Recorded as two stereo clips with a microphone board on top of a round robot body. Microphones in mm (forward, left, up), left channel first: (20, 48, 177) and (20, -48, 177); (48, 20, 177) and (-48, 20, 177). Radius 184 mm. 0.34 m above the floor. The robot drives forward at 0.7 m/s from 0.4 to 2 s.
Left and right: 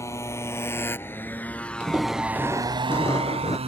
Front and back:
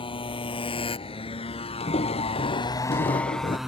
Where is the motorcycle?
30° left; by 3.7 s 95° right.